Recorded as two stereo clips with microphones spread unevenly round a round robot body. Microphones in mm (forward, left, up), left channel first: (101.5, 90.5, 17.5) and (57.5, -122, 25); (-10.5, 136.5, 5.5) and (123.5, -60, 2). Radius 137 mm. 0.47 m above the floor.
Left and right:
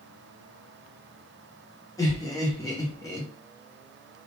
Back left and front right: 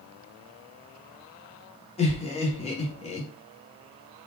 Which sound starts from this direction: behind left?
Laughter, at 2.0 s.